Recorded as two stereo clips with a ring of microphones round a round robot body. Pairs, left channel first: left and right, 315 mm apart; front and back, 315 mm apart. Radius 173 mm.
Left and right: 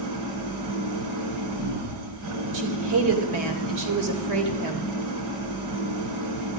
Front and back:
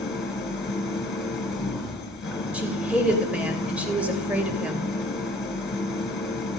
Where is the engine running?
55° right, 3 m.